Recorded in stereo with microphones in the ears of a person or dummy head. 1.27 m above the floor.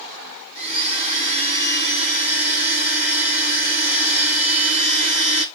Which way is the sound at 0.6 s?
50° left (ahead or behind).